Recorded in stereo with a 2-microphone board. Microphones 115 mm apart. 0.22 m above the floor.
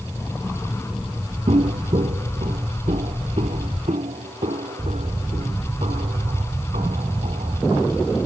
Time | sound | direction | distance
1.5 | footsteps | 60° right (ahead or behind) | ?